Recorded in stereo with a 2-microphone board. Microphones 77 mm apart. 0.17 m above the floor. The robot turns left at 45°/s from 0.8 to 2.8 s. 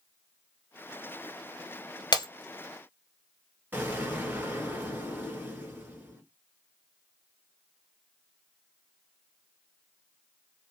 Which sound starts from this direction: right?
An explosion, at 3.7 s.